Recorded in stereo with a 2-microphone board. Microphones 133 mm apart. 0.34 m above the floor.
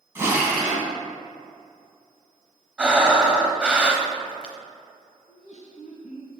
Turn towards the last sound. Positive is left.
turn(degrees=65)  # may be behind; listen again after turning